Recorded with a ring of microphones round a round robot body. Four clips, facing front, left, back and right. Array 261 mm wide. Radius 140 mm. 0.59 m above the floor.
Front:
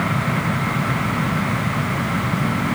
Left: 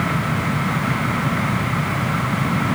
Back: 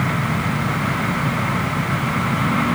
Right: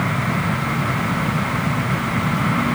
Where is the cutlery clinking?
I don't hear cutlery clinking.